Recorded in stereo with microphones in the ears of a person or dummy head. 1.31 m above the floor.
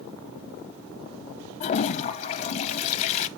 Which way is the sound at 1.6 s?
40° left (ahead or behind).